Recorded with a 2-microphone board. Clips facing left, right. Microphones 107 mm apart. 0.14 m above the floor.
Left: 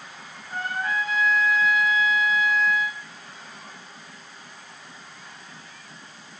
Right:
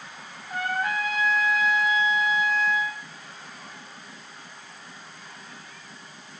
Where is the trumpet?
80° right, 7.5 m.